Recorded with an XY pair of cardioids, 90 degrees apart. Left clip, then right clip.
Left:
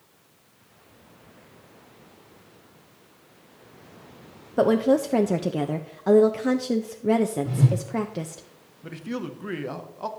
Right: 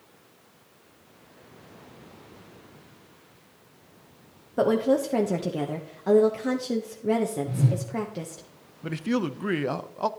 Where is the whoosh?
65° left, 3 m.